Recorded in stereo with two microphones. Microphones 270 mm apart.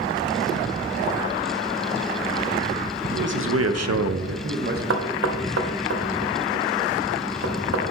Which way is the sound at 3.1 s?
40° right (ahead or behind).